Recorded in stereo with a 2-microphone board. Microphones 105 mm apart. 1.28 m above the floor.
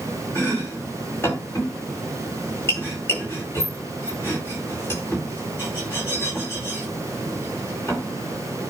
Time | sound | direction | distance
0.3 | chopping | 25° left (ahead or behind) | 5 m